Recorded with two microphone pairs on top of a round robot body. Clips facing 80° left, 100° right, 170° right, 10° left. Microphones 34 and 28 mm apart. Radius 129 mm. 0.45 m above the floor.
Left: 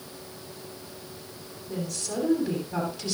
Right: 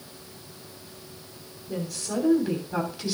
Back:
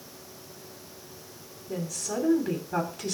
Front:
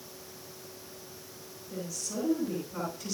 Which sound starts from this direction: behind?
A woman speaking, at 1.7 s.